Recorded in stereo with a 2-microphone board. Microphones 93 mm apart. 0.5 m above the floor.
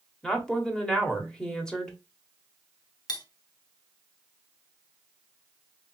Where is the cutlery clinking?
45° left (ahead or behind), 0.7 m.